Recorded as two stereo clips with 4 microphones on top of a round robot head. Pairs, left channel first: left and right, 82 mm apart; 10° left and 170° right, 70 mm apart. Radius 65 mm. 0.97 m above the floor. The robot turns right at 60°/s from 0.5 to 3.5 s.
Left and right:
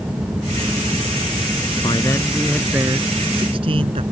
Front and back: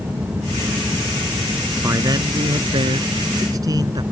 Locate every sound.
1.8 s a man speaking: 140° left; by 4.0 s 120° right